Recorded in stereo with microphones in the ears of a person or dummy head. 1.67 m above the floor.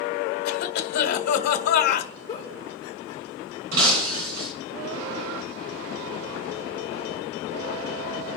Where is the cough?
55° left (ahead or behind), 2.0 m.